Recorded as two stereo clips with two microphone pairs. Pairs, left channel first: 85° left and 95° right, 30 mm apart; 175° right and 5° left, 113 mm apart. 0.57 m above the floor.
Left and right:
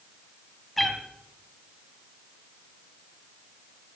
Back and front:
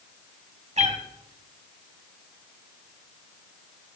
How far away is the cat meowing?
About 1.9 m.